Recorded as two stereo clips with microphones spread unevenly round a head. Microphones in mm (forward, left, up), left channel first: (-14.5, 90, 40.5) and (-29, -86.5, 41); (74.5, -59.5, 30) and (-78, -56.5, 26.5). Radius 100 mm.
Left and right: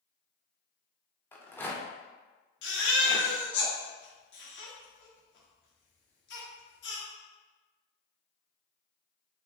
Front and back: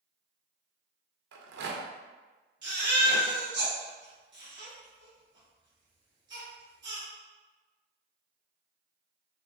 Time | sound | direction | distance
1.3 | a rattle | 165° left | 0.6 m
2.6 | a baby crying | 110° left | 1.3 m